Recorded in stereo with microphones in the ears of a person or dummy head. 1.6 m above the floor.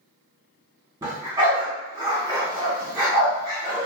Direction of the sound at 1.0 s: 10° right (ahead or behind).